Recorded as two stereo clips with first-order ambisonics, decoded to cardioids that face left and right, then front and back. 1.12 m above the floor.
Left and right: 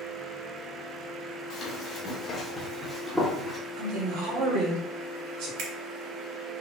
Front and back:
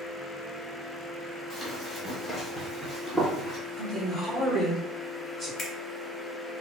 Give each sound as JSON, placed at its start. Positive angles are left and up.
{"t": 1.5, "sound": "running footsteps", "azimuth_deg": 85, "distance_m": 1.3}
{"t": 3.8, "sound": "a man speaking", "azimuth_deg": -95, "distance_m": 1.6}
{"t": 5.6, "sound": "a finger snap", "azimuth_deg": -65, "distance_m": 0.9}